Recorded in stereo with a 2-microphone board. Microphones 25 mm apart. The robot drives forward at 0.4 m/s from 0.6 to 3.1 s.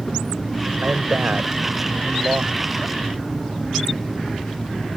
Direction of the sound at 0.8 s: 65° right (ahead or behind).